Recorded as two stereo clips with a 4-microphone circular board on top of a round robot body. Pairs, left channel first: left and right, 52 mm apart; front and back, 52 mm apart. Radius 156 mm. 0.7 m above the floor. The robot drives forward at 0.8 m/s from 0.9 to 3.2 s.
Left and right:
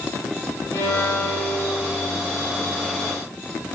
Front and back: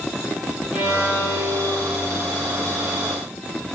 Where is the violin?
105° left, 7.5 m; by 2.1 s 115° left, 8 m.